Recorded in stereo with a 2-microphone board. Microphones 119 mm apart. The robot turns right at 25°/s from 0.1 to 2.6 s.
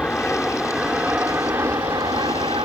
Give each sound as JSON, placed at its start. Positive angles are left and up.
{"t": 0.0, "sound": "an aircraft", "azimuth_deg": 170}